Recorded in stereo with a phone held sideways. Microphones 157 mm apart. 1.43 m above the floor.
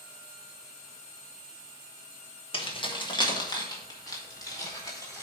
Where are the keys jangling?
35° left (ahead or behind), 1.3 m; by 5.2 s 20° left (ahead or behind), 3 m.